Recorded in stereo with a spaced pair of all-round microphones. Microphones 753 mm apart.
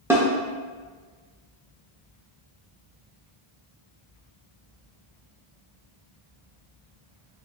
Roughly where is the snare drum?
Centre.